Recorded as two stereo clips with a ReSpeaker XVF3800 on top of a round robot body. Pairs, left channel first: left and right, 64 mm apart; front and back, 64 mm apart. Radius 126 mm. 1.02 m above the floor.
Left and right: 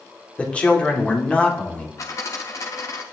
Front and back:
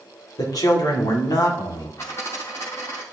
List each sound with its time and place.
0.4 s a man speaking: 20° left, 2.5 m
2.0 s a dropped coin: 60° left, 0.7 m